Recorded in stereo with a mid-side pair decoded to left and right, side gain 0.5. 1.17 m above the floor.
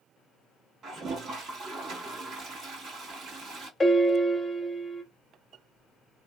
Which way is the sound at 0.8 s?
55° right.